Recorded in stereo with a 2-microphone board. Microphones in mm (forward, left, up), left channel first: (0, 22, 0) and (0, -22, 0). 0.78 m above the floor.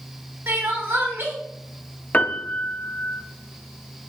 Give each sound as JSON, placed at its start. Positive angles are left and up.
{"t": 0.5, "sound": "crying", "side_deg": -65, "distance_m": 1.2}
{"t": 2.1, "sound": "a piano", "side_deg": 35, "distance_m": 0.5}